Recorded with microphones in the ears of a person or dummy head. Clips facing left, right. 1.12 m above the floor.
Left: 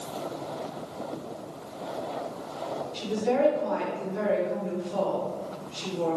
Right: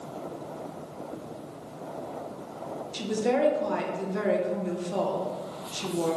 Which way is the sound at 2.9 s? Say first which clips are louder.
Even; 60° right (ahead or behind).